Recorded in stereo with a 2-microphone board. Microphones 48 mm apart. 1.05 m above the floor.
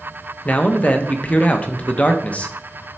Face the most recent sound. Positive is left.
turn(degrees=30)  # may be behind; listen again after turning